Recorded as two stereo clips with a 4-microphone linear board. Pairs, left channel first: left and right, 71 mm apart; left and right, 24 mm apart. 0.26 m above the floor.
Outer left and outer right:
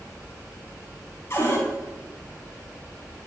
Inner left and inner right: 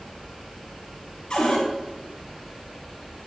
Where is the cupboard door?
40° left (ahead or behind), 4 m.